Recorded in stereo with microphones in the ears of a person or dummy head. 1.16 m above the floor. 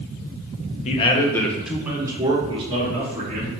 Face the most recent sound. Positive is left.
turn(degrees=-40)  # may be behind; listen again after turning